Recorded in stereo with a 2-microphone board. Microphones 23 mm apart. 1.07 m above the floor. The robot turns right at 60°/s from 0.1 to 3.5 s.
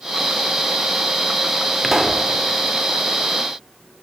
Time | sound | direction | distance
1.8 | a pop | centre (ahead or behind) | 3.5 m